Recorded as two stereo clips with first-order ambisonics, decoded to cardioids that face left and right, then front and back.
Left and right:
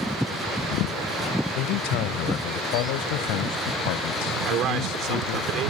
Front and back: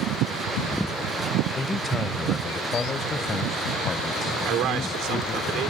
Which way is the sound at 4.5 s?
140° right.